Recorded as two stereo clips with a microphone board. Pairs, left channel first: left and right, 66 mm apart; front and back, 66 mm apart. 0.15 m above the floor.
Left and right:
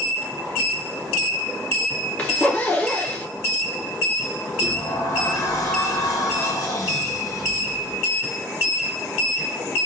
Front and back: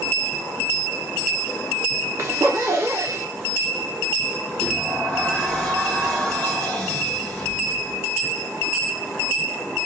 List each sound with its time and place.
2.2 s a zipper: 150° left, 1.2 m
4.6 s a sliding door: 80° left, 2 m